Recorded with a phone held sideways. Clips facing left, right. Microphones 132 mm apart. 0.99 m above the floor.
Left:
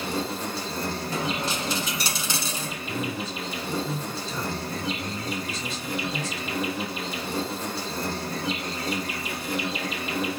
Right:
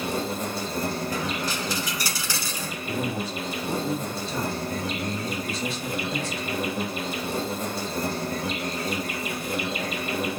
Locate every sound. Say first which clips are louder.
0.0 s an insect: right 1 dB; 45° right (ahead or behind), 1.6 m
1.1 s a dropped coin: even; 25° left (ahead or behind), 1.0 m
2.9 s a man speaking: right 3 dB; 60° right (ahead or behind), 1.9 m